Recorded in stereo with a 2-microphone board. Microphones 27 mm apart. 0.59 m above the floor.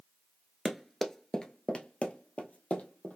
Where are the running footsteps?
10° right (ahead or behind), 0.6 m; by 3.2 s 65° left (ahead or behind), 1.3 m.